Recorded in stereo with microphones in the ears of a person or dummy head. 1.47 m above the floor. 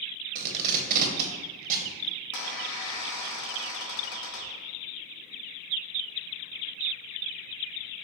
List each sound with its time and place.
0.3 s tape being pulled: 45° right (ahead or behind), 0.6 m
2.3 s a squeak: 65° left (ahead or behind), 1.1 m